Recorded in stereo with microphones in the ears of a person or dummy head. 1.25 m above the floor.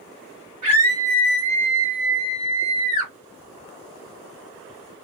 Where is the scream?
25° right (ahead or behind), 1.4 m; by 3.1 s 70° right (ahead or behind), 1.1 m.